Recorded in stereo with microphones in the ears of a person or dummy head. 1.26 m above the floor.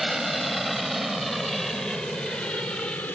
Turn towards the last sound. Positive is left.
turn(degrees=15)  # may be behind; listen again after turning